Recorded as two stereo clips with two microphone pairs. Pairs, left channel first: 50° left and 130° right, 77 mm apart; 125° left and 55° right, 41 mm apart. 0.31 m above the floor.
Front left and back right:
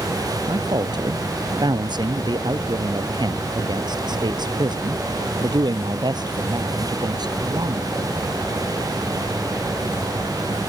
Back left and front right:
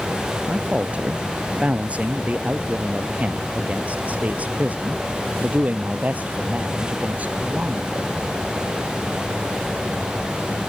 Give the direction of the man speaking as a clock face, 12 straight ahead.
4 o'clock.